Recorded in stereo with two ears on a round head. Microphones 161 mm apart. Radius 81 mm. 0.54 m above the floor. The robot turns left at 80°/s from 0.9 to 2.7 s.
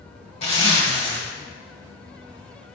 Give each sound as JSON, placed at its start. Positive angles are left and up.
{"t": 0.4, "sound": "a zipper", "side_deg": 35, "distance_m": 1.1}